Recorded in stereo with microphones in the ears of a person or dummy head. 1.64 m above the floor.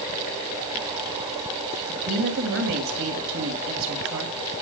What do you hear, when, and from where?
1.9 s a woman speaking: 75° right (ahead or behind), 2.5 m